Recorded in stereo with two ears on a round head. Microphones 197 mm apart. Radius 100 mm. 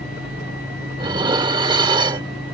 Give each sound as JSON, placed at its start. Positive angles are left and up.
{"t": 1.0, "sound": "dishes clattering", "side_deg": -20}